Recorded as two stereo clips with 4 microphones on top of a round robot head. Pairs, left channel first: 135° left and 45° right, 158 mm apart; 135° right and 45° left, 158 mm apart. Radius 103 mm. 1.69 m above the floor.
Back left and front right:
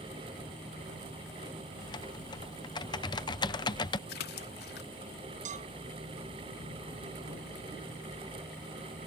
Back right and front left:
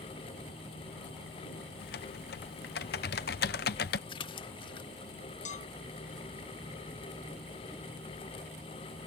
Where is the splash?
160° left.